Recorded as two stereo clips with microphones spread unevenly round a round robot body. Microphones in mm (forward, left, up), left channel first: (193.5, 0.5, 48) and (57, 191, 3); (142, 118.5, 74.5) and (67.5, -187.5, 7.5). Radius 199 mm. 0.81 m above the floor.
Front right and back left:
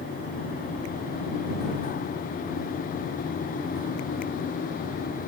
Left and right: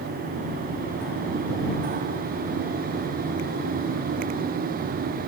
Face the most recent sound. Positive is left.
No sound to turn to.